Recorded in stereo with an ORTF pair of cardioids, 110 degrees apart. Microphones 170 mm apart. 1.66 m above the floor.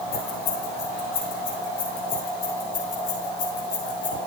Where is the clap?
I don't hear a clap.